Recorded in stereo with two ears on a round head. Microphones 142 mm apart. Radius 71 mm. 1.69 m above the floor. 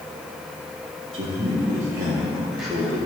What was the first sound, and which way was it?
A man speaking, 30° right (ahead or behind).